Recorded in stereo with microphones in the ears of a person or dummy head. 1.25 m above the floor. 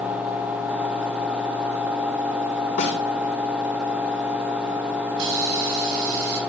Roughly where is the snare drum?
Left.